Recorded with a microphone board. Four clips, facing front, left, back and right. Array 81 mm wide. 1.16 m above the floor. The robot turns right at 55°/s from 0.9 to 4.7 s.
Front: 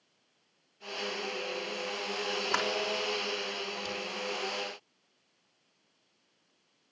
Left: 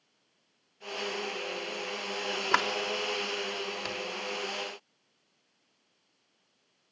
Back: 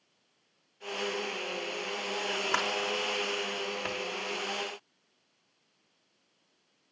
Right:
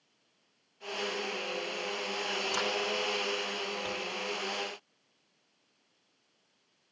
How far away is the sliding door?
About 3 m.